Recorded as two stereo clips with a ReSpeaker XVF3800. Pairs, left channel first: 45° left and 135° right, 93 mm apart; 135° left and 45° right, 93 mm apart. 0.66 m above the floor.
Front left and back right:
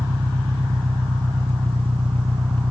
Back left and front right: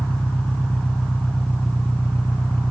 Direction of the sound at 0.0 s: 150° right.